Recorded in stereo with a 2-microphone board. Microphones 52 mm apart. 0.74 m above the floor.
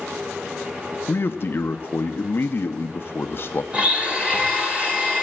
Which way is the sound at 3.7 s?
25° right (ahead or behind).